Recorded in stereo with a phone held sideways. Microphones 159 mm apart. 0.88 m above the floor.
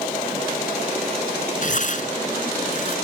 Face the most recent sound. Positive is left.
turn(degrees=55)  # may be behind; listen again after turning